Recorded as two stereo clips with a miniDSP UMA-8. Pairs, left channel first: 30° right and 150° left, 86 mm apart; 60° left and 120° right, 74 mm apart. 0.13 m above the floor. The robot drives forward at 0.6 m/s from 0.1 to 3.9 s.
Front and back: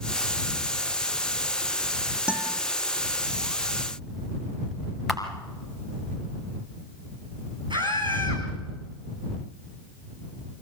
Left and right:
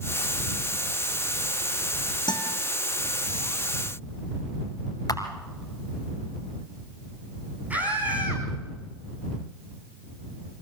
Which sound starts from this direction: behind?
A scream, at 7.7 s.